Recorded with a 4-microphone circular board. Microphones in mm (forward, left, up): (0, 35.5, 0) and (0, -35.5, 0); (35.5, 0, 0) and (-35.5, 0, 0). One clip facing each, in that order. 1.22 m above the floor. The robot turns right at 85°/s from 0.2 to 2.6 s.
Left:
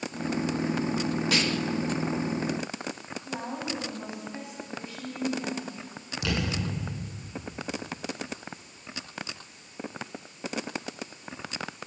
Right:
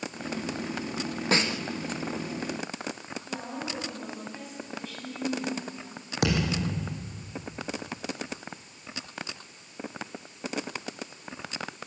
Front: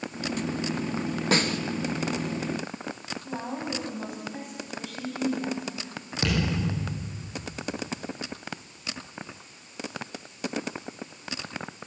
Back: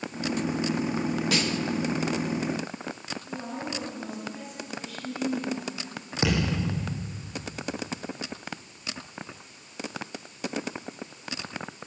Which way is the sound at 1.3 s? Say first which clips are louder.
Right 4 dB, front 2 dB; 40° right.